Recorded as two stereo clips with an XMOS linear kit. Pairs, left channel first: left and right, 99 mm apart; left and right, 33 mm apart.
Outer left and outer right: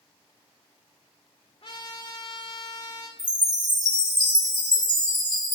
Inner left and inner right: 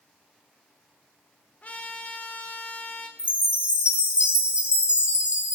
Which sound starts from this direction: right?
A chime, at 3.2 s.